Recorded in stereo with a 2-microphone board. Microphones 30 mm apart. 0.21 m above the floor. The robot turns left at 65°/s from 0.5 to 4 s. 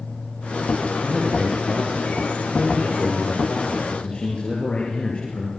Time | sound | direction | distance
1.0 | a man speaking | 25° right | 5 m